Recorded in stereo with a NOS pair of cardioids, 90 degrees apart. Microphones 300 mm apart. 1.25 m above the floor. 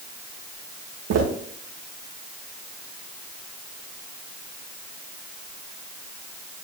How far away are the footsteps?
About 4.5 m.